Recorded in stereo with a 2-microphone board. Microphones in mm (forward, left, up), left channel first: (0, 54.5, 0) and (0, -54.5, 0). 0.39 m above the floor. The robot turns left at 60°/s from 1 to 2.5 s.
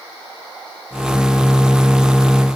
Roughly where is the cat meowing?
No cat meowing in this recording.